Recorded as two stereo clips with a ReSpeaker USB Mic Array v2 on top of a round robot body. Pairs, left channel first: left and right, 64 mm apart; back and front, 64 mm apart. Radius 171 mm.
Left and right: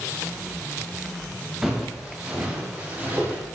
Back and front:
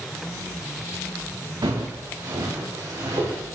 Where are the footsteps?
5° right, 2.5 m; by 3.4 s 30° right, 3 m.